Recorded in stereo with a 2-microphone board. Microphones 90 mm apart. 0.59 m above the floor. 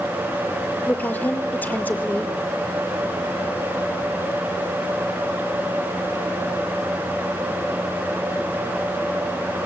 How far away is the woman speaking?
About 1.9 m.